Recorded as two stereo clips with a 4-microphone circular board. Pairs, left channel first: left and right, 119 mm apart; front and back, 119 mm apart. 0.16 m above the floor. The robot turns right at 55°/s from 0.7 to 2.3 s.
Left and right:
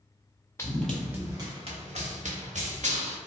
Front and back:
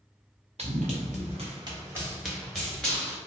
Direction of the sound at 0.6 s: 155° left.